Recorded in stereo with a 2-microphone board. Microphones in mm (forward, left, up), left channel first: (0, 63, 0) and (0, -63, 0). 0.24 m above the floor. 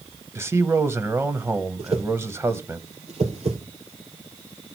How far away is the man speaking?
About 0.9 m.